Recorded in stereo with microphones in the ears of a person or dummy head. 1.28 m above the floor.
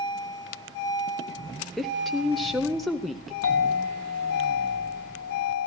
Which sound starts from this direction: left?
A clink, at 3.4 s.